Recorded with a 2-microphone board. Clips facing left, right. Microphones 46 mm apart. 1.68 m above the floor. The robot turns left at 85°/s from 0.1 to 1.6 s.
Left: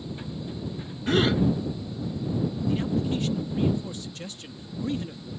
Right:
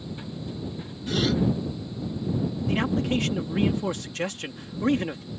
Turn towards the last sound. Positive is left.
turn(degrees=-70)  # may be behind; listen again after turning